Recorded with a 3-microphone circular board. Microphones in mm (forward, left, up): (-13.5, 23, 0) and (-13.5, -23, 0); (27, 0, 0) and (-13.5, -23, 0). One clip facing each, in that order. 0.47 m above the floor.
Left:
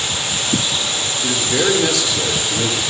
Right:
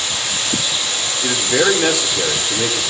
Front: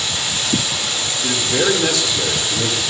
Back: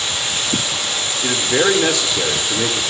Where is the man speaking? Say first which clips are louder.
Right 2 dB, back 2 dB; 140° right, 1.4 m.